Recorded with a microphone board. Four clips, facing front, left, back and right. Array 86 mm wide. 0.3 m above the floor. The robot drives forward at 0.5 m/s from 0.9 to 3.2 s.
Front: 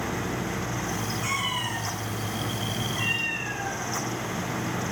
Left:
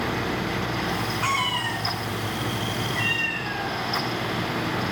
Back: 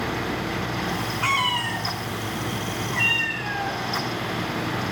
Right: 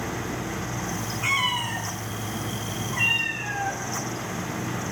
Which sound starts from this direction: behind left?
A cat meowing, at 1.2 s.